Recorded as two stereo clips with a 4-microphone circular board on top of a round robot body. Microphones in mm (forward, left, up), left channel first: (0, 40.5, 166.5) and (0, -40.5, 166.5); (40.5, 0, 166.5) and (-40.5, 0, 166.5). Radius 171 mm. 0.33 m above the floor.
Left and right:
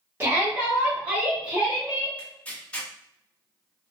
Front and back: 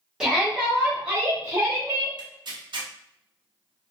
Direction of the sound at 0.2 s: 105° right.